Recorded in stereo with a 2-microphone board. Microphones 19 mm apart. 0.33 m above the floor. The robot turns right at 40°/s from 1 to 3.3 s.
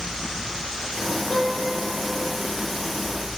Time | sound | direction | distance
1.3 | a piano | 105° left | 9 m